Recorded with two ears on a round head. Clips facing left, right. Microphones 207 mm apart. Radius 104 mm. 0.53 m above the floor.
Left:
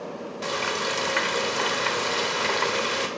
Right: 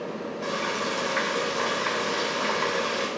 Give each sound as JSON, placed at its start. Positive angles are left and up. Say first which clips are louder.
{"t": 0.4, "sound": "frying", "louder": "left 2 dB", "side_deg": 55, "distance_m": 1.2}